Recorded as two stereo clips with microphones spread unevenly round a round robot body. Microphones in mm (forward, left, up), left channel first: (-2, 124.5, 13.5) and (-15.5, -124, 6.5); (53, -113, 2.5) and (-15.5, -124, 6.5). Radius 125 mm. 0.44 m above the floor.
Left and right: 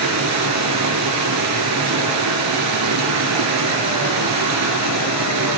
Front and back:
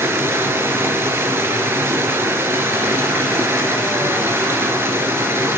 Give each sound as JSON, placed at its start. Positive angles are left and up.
{"t": 0.0, "sound": "running water", "azimuth_deg": -115, "distance_m": 3.0}